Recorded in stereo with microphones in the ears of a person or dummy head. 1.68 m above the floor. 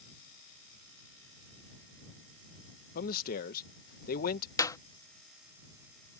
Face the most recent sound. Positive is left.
turn(degrees=20)  # may be behind; listen again after turning